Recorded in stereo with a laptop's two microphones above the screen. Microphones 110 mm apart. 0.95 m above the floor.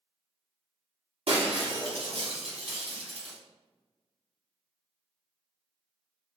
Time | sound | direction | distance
1.3 | breaking glass | 65° right (ahead or behind) | 1.8 m